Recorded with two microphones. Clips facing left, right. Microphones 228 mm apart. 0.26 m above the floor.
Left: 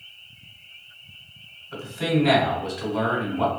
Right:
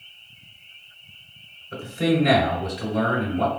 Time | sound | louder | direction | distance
1.7 | a man speaking | right 2 dB | 35° right (ahead or behind) | 1.4 m